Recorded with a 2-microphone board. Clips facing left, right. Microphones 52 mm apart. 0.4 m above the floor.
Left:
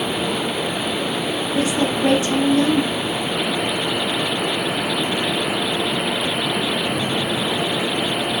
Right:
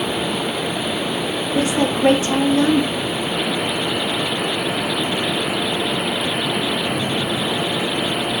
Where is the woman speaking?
35° right (ahead or behind), 1.4 m.